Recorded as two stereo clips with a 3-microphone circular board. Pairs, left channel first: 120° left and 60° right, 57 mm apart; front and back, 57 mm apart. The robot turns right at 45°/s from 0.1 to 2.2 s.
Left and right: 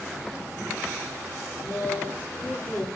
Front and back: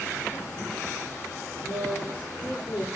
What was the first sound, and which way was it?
A woman speaking, 35° left.